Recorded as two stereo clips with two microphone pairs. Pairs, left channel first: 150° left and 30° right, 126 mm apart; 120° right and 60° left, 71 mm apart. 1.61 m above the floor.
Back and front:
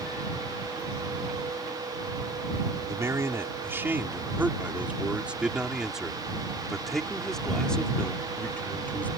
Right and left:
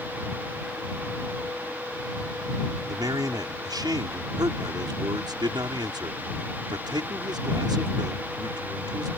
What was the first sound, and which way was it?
A man speaking, 40° left.